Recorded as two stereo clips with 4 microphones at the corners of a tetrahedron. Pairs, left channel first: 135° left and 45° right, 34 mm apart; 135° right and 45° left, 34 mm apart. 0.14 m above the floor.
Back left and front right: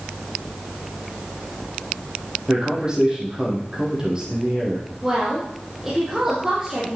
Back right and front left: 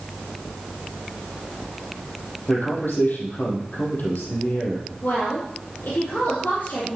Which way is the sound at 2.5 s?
115° right.